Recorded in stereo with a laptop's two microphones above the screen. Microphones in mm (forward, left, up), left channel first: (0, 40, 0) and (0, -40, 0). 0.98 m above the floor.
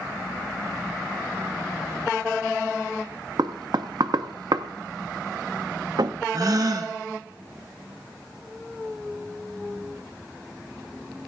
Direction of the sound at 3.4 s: 60° right (ahead or behind).